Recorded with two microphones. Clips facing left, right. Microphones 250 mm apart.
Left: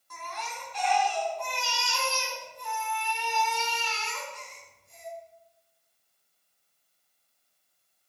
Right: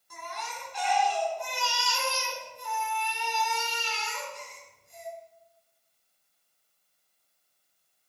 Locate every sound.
0.1 s a baby crying: 10° right (ahead or behind), 3 m